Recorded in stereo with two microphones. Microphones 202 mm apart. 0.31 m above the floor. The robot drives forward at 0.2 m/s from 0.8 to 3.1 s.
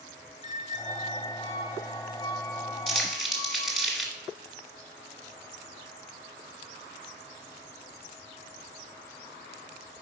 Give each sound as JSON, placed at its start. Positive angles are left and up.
{"t": 0.4, "sound": "a squeak", "side_deg": 40, "distance_m": 0.5}
{"t": 2.9, "sound": "crumpling", "side_deg": 0, "distance_m": 1.6}